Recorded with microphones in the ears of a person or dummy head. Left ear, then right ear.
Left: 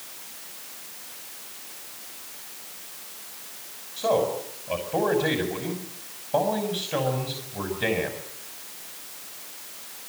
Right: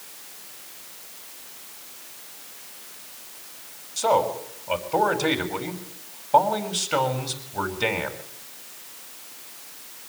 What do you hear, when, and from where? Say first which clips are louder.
4.0 s a man speaking: right 2 dB; 60° right (ahead or behind), 5.5 m